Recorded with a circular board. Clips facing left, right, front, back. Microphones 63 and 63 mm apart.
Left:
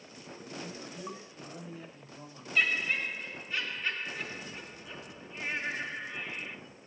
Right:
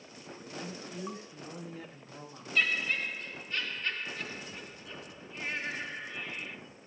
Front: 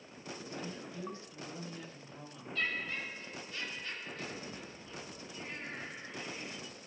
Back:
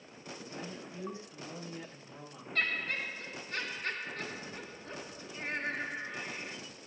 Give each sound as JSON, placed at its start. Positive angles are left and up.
{"t": 0.6, "sound": "a woman speaking", "azimuth_deg": -110, "distance_m": 4.5}
{"t": 2.5, "sound": "laughter", "azimuth_deg": 175, "distance_m": 4.0}